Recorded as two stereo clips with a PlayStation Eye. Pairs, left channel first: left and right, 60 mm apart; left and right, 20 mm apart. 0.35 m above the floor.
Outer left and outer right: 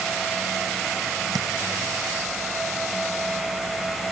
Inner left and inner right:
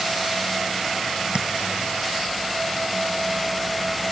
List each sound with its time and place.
1.4 s tapping: 85° right